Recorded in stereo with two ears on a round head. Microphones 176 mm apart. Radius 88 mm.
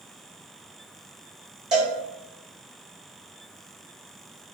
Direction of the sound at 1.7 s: 5° right (ahead or behind).